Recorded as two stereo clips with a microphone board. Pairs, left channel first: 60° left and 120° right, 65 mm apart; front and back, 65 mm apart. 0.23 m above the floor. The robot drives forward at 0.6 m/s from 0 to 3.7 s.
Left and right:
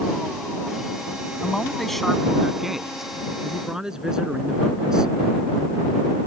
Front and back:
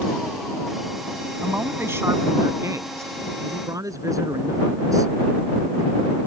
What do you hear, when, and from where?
1.4 s a man speaking: 135° left; by 5.1 s 160° left